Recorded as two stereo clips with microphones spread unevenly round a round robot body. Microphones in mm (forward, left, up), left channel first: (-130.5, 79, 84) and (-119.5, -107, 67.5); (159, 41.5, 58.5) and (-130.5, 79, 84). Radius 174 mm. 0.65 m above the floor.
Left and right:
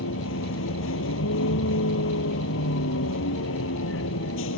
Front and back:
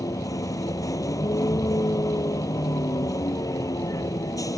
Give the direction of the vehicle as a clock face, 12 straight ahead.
10 o'clock.